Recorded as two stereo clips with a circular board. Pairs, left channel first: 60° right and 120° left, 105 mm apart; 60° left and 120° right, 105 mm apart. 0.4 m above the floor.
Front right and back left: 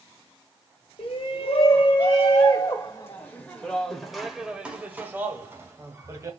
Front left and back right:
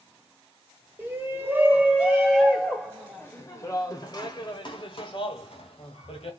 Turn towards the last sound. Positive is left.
turn(degrees=65)